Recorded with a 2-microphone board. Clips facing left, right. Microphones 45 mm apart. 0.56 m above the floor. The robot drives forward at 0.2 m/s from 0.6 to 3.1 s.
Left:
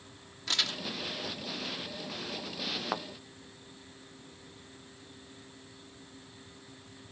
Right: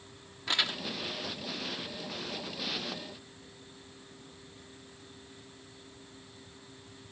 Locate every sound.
0.5 s crumpling: 20° right (ahead or behind)
2.9 s a thud: 85° left